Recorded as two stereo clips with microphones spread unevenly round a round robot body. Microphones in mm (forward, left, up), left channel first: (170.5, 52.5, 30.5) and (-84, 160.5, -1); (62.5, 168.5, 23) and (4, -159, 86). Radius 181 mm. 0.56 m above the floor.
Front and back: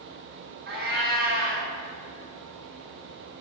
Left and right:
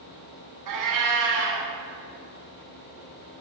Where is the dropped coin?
No dropped coin in this recording.